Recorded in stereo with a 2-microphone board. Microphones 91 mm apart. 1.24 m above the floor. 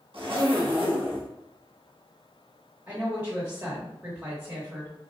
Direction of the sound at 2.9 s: 20° right (ahead or behind).